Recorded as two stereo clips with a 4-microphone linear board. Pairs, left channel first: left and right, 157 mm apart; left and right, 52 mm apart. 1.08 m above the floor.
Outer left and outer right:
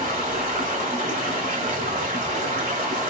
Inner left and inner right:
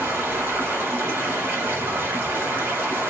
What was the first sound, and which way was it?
Running water, 50° right (ahead or behind).